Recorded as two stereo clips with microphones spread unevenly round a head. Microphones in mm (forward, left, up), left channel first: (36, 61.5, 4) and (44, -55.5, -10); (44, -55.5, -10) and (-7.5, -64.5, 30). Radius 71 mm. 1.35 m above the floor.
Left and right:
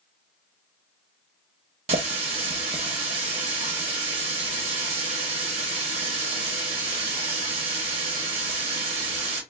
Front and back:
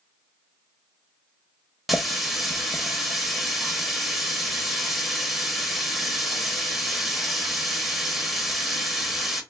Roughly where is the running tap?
Behind right.